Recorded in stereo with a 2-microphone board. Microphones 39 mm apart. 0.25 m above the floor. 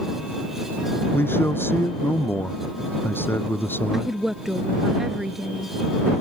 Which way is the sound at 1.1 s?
80° left.